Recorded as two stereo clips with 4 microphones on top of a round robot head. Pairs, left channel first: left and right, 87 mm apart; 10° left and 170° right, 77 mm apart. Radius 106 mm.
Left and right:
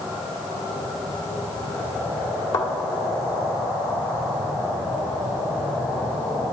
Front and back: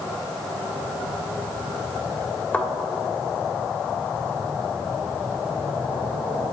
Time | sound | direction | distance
2.5 | a thud | 75° left | 2 m